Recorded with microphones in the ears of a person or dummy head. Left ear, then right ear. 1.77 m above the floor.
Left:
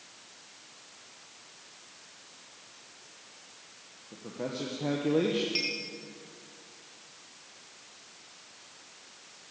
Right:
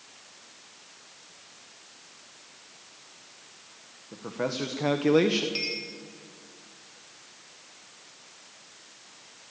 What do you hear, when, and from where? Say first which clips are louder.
4.1 s a man speaking: right 6 dB; 55° right (ahead or behind), 1.8 m; by 5.5 s 70° right (ahead or behind), 1.1 m
5.5 s a clink: even; 10° left (ahead or behind), 3 m